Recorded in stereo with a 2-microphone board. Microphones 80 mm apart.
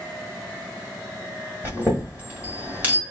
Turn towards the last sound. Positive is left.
turn(degrees=-20)  # may be behind; listen again after turning